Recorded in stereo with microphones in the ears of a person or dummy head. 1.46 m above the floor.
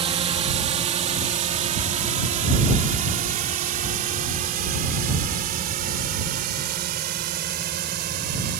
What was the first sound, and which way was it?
A drone, 30° right (ahead or behind).